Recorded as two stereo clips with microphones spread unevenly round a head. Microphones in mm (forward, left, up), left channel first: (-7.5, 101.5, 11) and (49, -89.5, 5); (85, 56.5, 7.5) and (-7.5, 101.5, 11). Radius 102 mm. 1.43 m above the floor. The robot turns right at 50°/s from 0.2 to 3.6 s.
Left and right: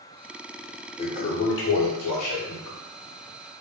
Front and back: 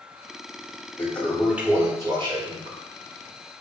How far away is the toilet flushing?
About 0.8 m.